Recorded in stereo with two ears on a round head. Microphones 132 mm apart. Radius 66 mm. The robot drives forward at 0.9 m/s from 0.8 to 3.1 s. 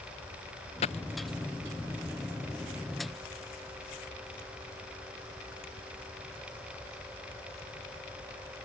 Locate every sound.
0.8 s a dropped coin: 45° left (ahead or behind)